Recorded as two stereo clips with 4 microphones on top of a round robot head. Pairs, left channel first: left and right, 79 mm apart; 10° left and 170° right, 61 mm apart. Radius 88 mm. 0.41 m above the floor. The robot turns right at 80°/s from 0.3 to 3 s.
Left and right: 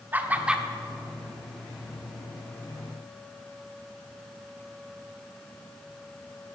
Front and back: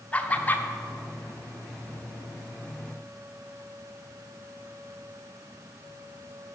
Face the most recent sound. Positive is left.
turn(degrees=180)